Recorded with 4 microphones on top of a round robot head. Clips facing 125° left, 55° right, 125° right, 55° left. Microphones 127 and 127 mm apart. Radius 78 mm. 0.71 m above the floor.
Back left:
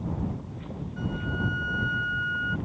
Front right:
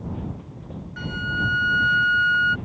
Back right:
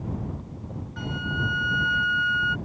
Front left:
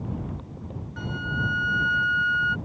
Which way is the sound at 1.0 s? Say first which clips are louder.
Front right 2 dB, even; 40° right.